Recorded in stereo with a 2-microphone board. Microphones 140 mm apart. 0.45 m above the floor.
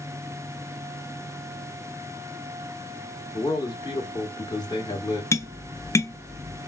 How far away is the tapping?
About 0.7 m.